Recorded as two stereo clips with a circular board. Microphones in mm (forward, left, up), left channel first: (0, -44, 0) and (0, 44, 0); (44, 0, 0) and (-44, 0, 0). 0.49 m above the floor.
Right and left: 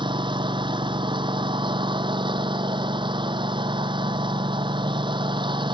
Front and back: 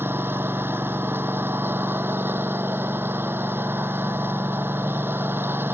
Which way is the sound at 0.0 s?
115° left.